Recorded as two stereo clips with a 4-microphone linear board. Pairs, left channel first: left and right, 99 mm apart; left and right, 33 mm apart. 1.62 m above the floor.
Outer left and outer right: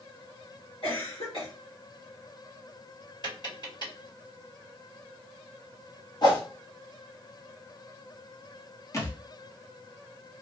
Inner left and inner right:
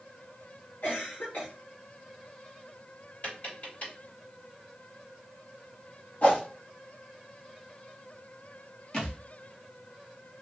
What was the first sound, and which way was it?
A cough, 65° left (ahead or behind).